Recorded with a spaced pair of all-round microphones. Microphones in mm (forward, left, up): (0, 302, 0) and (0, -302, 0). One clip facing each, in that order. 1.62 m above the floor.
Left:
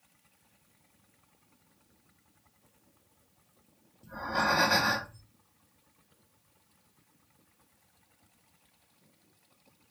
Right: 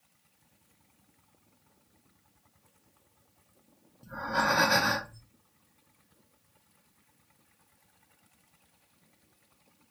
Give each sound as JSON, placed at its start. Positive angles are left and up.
{"t": 4.0, "sound": "breathing", "side_deg": -40, "distance_m": 0.7}